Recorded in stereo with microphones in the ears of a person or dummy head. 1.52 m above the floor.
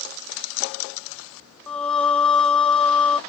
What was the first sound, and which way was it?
Singing, 5° left (ahead or behind).